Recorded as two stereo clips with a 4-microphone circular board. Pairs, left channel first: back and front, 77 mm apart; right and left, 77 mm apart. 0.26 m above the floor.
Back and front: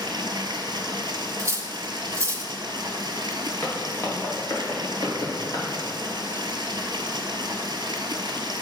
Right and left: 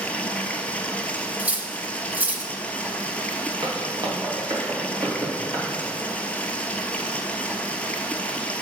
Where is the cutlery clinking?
30° left, 0.8 m.